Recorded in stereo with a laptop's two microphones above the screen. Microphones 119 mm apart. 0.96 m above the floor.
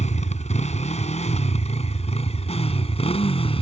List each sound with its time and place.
0.0 s a motorcycle: 85° left; by 3.6 s 55° left (ahead or behind)